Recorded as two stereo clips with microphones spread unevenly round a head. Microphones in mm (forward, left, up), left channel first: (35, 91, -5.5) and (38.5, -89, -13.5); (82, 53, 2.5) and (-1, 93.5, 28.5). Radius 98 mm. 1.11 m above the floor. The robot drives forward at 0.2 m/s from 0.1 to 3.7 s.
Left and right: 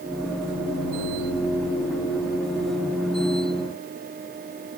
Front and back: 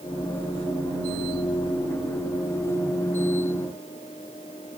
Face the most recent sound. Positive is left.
No sound to turn to.